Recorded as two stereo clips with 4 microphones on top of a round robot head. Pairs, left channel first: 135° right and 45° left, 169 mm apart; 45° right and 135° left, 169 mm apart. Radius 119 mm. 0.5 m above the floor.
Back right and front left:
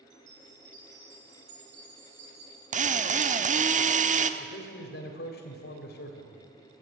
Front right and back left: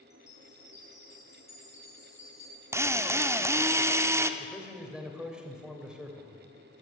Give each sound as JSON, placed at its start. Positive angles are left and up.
{"t": 0.1, "sound": "a chime", "azimuth_deg": 30, "distance_m": 8.0}
{"t": 2.7, "sound": "a drill", "azimuth_deg": 65, "distance_m": 1.1}
{"t": 4.4, "sound": "a man speaking", "azimuth_deg": -135, "distance_m": 3.0}